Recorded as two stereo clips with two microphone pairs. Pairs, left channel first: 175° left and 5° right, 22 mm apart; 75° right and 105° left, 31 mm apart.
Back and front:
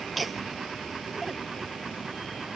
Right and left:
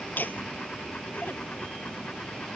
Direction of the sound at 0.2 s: 90° right.